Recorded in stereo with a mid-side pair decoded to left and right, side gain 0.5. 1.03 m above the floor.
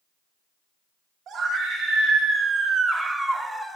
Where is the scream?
65° right, 1.5 m; by 3.8 s 5° left, 0.7 m.